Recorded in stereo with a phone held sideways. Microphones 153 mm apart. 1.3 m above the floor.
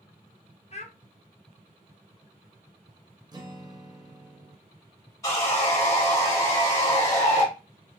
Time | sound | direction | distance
0.7 | a child speaking | 45° left (ahead or behind) | 0.6 m
3.3 | a guitar | 25° right (ahead or behind) | 0.5 m
5.2 | sawing | 20° left (ahead or behind) | 1.7 m